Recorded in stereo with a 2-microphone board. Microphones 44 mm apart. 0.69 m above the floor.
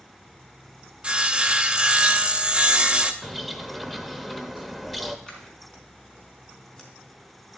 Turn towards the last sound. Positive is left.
turn(degrees=15)  # may be behind; listen again after turning